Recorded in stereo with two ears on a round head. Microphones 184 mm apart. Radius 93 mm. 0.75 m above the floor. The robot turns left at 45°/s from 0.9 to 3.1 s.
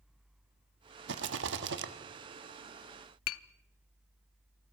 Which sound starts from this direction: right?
A rattle, at 1.1 s.